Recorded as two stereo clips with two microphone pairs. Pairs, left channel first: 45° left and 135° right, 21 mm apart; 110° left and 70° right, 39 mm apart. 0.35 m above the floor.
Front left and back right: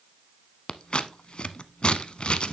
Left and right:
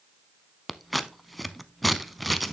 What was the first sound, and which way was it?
Scissors, 20° left.